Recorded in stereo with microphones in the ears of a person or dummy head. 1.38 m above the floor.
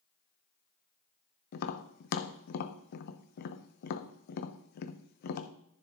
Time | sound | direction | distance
1.5 | tapping | 50° left (ahead or behind) | 0.8 m